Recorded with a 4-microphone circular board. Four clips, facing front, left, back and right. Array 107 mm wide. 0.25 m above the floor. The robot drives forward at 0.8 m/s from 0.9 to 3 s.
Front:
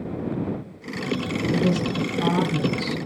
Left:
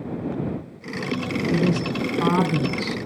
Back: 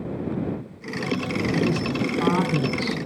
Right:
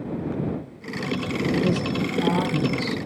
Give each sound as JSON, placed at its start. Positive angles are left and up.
{"t": 1.5, "sound": "a woman speaking", "azimuth_deg": 105, "distance_m": 3.0}